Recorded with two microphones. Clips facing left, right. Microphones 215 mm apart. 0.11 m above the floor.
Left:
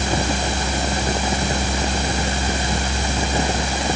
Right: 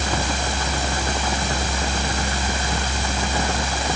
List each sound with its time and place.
Only background noise.